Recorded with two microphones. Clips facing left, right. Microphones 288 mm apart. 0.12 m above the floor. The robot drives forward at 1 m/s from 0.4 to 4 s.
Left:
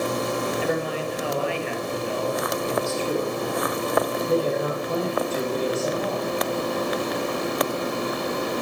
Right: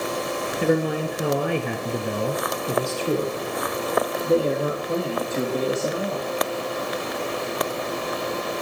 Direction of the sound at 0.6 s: 45° right (ahead or behind).